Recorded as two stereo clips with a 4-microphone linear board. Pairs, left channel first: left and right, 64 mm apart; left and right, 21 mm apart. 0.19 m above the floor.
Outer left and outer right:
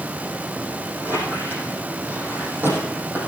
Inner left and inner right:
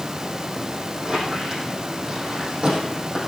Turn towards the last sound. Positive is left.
turn(degrees=-35)  # may be behind; listen again after turning